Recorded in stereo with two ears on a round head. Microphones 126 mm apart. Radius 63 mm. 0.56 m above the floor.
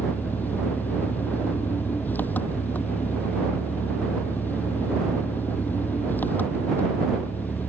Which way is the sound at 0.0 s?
15° left (ahead or behind).